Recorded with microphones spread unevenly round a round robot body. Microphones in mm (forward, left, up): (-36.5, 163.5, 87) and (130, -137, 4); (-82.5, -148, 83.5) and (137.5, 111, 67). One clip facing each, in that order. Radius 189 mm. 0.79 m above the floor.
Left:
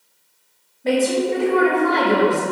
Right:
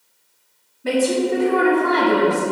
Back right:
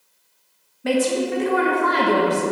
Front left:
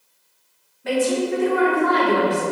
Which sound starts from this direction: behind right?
A woman speaking, at 0.8 s.